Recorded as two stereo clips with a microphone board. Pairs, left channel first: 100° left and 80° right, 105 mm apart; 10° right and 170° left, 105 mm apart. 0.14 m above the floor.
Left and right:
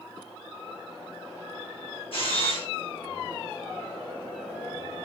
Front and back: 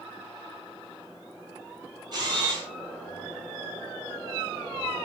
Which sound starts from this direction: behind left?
A camera shutter, at 2.1 s.